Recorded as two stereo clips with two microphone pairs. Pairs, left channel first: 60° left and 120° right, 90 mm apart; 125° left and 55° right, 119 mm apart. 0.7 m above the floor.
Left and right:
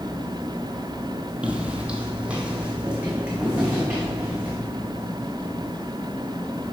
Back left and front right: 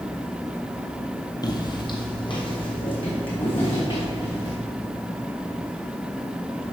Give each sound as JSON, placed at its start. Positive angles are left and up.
{"t": 1.4, "sound": "footsteps", "azimuth_deg": 170, "distance_m": 1.0}